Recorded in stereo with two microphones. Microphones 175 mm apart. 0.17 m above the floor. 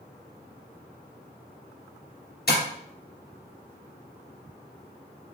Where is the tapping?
65° left (ahead or behind), 2.5 m.